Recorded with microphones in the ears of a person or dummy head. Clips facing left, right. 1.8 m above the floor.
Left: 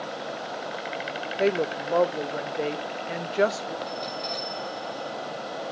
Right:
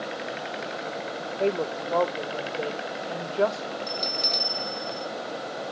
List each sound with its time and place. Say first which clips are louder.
1.4 s a woman speaking: left 2 dB; 25° left (ahead or behind), 0.5 m
3.9 s a bell: even; 45° right (ahead or behind), 1.2 m